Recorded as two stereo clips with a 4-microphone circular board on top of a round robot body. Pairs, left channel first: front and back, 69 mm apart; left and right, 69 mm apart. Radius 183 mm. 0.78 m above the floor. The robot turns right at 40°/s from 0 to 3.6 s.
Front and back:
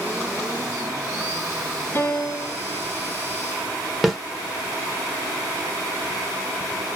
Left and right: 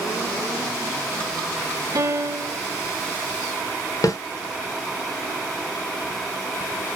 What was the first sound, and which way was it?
A piano, 60° right.